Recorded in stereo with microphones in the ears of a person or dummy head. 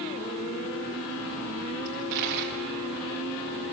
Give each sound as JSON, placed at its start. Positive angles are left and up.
{"t": 1.9, "sound": "a dropped coin", "side_deg": -50, "distance_m": 3.0}